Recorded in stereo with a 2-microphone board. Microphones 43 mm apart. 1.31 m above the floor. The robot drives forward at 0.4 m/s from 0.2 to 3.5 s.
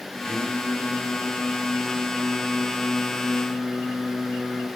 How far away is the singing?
About 4.5 m.